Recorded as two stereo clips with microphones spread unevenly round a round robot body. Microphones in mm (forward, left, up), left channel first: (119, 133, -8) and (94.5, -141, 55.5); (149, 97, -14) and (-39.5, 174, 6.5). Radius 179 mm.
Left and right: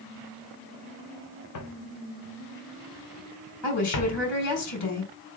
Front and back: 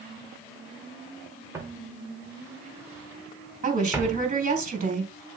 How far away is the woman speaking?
About 4.5 m.